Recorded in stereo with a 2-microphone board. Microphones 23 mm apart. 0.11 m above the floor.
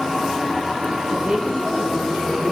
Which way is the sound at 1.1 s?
40° right (ahead or behind).